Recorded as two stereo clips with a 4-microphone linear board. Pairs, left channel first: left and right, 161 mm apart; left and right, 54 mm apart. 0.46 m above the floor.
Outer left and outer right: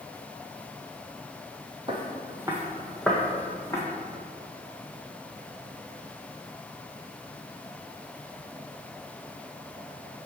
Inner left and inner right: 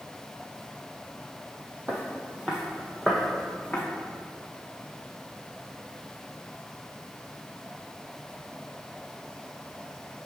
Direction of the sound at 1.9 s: 30° right (ahead or behind).